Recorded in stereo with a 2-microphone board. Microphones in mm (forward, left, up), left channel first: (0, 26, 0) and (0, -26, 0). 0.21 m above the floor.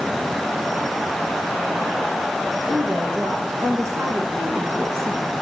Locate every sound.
2.7 s a woman speaking: 75° right (ahead or behind), 5 m; by 5.3 s 65° right (ahead or behind), 4.5 m